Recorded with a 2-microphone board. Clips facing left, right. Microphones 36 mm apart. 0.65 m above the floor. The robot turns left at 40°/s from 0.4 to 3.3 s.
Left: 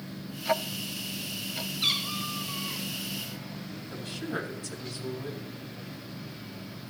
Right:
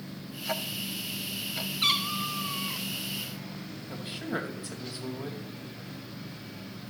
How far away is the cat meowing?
About 1.9 m.